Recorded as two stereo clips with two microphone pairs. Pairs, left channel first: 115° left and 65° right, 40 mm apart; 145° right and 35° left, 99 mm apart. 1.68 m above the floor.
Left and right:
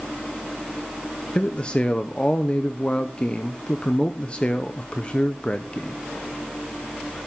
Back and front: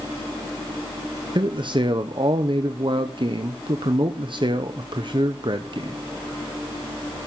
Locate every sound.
1.4 s a man speaking: 55° left, 0.8 m